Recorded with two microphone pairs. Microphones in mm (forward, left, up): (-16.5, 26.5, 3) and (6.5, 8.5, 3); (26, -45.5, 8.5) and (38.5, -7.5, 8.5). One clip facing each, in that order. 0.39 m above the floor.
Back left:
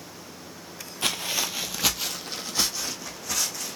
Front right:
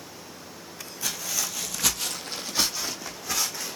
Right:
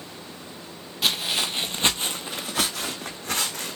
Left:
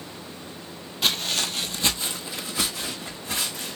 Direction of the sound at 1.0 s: 165° left.